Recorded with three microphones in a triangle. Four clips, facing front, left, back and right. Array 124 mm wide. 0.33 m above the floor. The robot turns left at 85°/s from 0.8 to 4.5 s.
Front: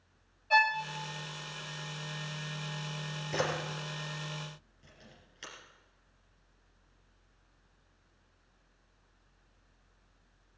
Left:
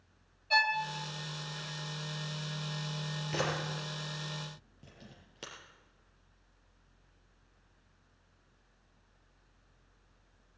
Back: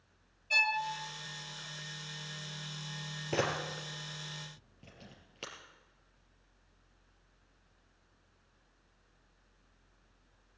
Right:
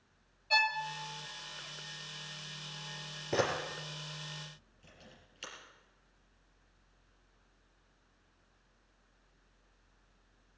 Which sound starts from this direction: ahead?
A violin, at 0.5 s.